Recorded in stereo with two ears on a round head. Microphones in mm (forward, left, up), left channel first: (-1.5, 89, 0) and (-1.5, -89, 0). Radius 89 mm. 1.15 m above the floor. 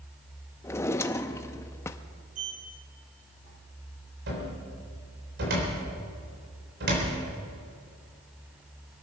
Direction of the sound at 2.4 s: 40° right (ahead or behind).